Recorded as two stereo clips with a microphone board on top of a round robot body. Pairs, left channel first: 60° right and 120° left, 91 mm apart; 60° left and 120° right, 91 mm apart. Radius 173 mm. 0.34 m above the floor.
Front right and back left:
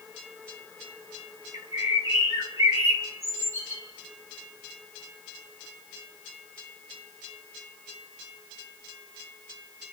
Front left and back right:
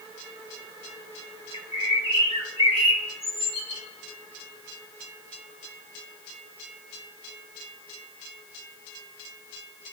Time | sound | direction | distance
1.5 | a bird | 60° left | 3 m